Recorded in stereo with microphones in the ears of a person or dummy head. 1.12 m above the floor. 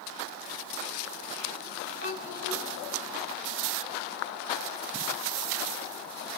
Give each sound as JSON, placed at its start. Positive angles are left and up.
{"t": 2.0, "sound": "a child speaking", "side_deg": -55, "distance_m": 6.0}